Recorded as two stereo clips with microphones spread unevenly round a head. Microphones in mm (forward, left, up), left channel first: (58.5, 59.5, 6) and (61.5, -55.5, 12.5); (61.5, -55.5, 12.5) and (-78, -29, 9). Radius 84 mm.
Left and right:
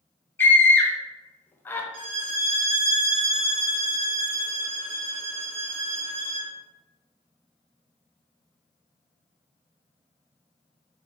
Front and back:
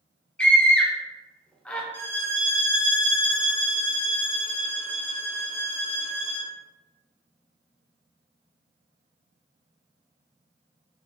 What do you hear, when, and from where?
0.4 s a scream: 65° left, 0.6 m
1.9 s a violin: 85° right, 0.8 m